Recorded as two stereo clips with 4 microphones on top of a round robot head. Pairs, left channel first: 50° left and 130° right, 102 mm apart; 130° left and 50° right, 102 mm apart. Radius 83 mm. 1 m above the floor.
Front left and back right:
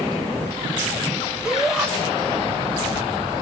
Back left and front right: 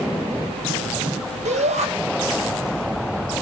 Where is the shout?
45° right, 6 m.